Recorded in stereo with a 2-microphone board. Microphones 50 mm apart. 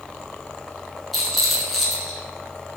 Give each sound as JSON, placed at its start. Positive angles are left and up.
{"t": 1.1, "sound": "a rattle", "side_deg": 0, "distance_m": 0.6}